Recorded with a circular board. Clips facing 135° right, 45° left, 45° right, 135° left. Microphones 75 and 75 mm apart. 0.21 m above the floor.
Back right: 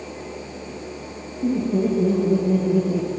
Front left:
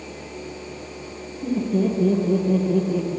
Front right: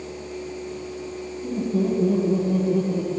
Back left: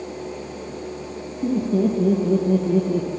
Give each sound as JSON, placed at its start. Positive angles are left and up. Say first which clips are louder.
{"t": 1.4, "sound": "laughter", "louder": "back right 1 dB, back left 4 dB", "azimuth_deg": 150, "distance_m": 6.0}